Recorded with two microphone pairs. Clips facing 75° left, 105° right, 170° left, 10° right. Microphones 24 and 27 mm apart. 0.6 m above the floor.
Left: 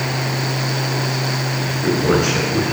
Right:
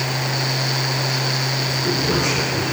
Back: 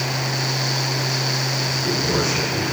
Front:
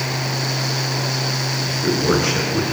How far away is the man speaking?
About 9.5 m.